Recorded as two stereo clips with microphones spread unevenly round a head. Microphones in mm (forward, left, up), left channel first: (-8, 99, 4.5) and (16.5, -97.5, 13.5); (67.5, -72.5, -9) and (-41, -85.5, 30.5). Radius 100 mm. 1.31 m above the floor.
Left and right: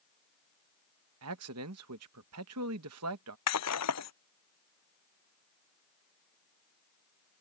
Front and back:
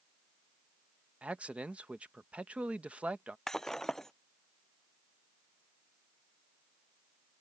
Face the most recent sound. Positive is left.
turn(degrees=95)